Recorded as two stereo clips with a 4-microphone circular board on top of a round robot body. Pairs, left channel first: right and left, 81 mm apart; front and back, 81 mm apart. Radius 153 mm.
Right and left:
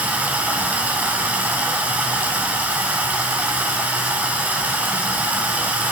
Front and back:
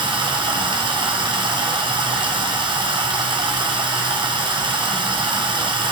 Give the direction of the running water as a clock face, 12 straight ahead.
7 o'clock.